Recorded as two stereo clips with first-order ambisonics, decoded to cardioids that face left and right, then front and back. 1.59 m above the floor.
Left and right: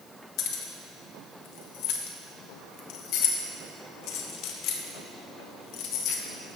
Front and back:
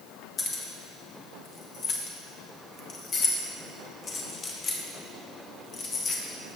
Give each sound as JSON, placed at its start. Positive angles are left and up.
{"t": 0.4, "sound": "keys jangling", "azimuth_deg": 65, "distance_m": 1.0}